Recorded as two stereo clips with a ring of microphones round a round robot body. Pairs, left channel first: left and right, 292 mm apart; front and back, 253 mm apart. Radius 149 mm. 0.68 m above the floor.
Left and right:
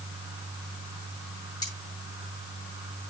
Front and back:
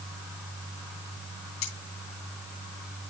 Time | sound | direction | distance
1.6 | cutlery clinking | 15° left | 6 m